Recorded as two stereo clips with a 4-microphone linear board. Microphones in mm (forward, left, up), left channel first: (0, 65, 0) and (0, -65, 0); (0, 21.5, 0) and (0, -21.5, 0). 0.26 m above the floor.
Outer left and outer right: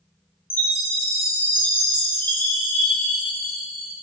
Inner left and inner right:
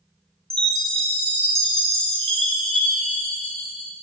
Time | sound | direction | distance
0.5 | a chime | 15° left (ahead or behind) | 1.5 m